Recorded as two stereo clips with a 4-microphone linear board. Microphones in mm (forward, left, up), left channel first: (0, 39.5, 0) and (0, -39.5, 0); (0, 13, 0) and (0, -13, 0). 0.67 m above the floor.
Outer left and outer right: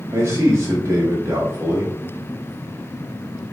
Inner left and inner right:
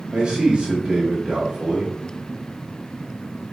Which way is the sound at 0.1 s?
35° right (ahead or behind).